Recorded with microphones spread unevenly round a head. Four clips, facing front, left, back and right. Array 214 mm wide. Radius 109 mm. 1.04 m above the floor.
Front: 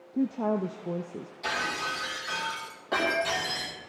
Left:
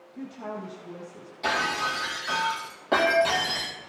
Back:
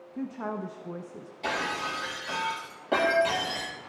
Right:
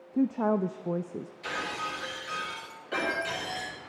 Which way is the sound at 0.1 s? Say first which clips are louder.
Right 10 dB, front 7 dB; 55° right.